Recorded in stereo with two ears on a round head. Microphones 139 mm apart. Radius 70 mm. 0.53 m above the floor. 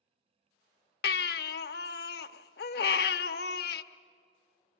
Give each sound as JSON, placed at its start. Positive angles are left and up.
{"t": 1.0, "sound": "a baby crying", "side_deg": 70, "distance_m": 0.6}